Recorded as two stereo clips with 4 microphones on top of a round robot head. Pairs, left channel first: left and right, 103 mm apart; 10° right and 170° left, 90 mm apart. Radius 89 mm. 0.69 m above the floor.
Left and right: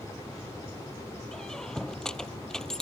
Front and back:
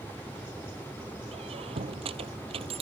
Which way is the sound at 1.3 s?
175° left.